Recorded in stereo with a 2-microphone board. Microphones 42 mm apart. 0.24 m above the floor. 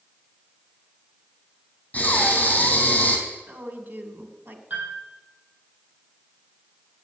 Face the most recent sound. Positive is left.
turn(degrees=-40)  # may be behind; listen again after turning